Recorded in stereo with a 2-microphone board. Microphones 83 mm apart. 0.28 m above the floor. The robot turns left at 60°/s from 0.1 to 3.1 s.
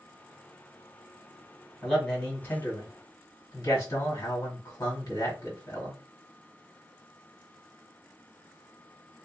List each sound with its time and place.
1.8 s a man speaking: 175° right, 1.7 m; by 6.0 s 110° left, 1.7 m